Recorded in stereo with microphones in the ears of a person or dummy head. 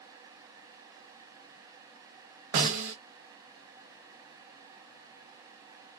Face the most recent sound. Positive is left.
turn(degrees=-60)  # may be behind; listen again after turning